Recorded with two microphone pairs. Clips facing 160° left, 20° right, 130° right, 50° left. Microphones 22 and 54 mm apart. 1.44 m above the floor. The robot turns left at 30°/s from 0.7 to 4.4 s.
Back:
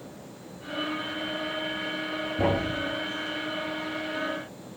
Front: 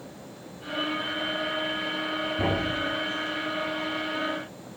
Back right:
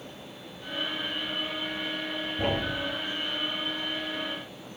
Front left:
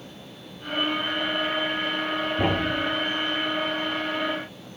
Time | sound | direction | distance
2.4 | a thud | 115° left | 1.0 m